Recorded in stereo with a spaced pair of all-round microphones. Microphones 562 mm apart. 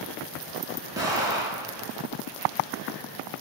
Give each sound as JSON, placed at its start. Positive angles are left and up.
{"t": 0.9, "sound": "an explosion", "side_deg": -5, "distance_m": 5.5}